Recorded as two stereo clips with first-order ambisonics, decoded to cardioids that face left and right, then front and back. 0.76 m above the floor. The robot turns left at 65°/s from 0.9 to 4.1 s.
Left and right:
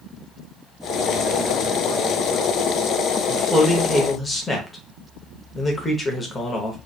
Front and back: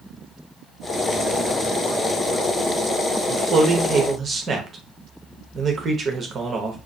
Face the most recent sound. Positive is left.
turn(degrees=145)